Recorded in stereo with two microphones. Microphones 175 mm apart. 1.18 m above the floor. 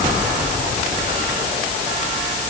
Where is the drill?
I don't hear a drill.